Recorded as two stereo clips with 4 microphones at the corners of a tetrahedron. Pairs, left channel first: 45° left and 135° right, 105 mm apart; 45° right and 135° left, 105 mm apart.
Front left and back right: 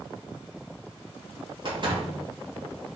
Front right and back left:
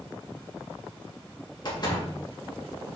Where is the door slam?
95° right, 2.5 m.